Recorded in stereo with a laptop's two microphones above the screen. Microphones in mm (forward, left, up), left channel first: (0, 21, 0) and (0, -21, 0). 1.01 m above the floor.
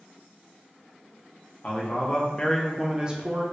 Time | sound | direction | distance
1.6 | a man speaking | 40° left (ahead or behind) | 1.0 m